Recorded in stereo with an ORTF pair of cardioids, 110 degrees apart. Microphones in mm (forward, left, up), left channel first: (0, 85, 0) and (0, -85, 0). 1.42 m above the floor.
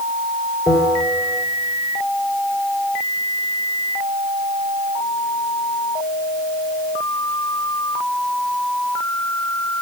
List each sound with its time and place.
0.7 s a bell: 20° left, 4.5 m